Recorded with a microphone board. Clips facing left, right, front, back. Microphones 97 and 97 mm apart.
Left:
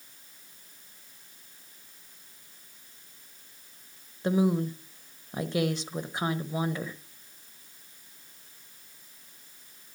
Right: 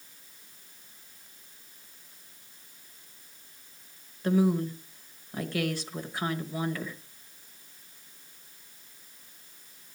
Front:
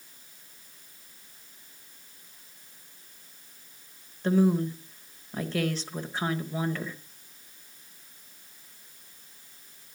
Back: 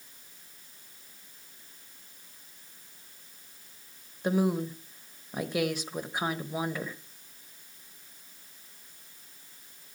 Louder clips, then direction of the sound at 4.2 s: Even, front 4 dB; 125° left.